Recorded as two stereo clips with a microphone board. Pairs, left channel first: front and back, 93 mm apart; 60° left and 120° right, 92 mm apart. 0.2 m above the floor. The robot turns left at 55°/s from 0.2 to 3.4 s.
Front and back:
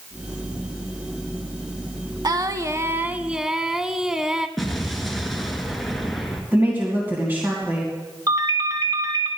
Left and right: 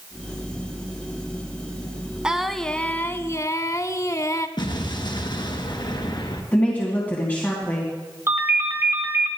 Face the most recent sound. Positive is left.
turn(degrees=-165)